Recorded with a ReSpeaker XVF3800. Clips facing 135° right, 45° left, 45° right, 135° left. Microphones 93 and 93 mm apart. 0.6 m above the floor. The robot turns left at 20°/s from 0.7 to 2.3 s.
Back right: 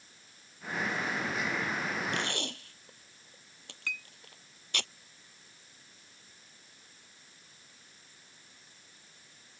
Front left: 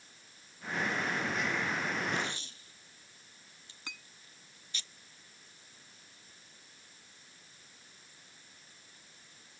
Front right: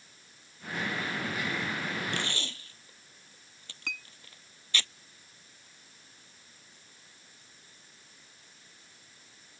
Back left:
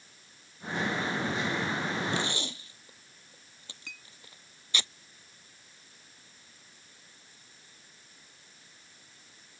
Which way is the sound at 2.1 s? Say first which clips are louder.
Back right 2 dB, back left 3 dB; 150° right.